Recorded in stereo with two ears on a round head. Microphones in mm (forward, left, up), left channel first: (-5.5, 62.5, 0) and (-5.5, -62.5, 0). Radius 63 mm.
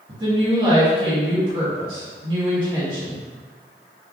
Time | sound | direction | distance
0.1 | a woman speaking | 40° right (ahead or behind) | 1.2 m